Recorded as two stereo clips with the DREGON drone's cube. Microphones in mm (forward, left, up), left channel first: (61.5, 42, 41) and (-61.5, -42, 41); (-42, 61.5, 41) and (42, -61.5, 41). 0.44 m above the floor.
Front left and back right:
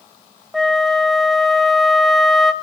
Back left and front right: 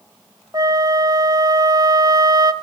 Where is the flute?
50° right, 0.8 m.